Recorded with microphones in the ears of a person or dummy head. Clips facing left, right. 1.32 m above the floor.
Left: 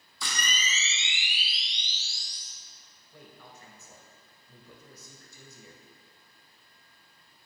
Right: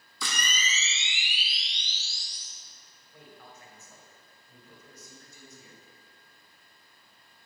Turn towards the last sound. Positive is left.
turn(degrees=80)